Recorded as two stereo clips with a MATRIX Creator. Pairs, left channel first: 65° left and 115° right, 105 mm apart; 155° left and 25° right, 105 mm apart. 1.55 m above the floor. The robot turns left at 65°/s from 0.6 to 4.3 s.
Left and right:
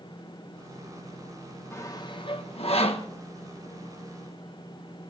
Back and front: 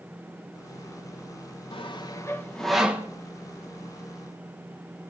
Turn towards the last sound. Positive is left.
turn(degrees=-35)